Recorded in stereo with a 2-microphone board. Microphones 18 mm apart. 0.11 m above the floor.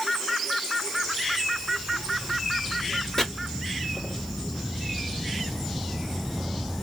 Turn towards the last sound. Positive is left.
turn(degrees=40)  # may be behind; listen again after turning